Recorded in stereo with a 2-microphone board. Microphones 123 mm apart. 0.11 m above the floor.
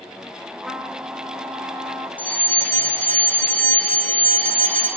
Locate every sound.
0.7 s a trumpet: centre (ahead or behind), 6 m
2.2 s a fire alarm: 10° left (ahead or behind), 9 m